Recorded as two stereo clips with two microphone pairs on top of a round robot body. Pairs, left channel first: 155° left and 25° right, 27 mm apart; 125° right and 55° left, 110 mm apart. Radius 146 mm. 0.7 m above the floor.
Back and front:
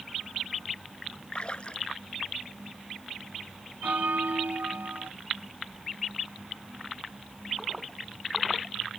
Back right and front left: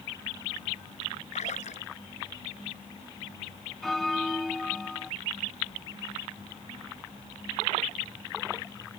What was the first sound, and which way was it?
A splash, 150° right.